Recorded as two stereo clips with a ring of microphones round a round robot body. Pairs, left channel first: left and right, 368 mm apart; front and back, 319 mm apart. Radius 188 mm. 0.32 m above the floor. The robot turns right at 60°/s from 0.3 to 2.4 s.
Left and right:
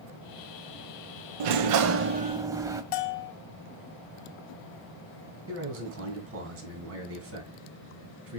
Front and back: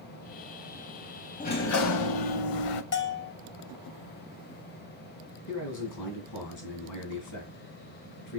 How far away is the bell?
About 0.8 m.